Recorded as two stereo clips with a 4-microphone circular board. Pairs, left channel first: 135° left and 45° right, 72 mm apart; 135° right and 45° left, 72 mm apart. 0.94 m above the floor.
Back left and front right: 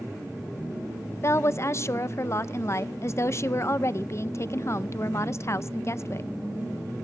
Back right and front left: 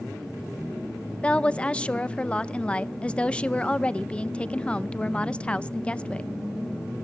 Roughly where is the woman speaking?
Behind left.